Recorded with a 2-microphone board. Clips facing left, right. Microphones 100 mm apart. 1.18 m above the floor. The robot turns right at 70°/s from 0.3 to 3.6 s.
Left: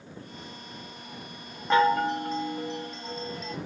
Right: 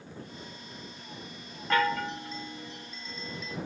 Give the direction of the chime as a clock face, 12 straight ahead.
11 o'clock.